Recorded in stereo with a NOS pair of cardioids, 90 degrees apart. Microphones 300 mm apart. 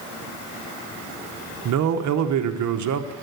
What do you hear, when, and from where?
1.6 s a man speaking: 65° right, 1.0 m